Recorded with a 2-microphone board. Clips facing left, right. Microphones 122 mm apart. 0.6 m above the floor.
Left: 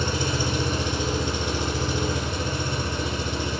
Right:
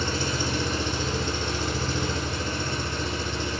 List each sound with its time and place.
0.0 s an engine running: 15° left (ahead or behind), 0.7 m